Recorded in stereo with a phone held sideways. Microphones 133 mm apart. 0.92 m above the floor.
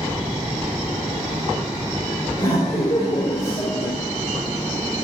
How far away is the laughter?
About 3.5 m.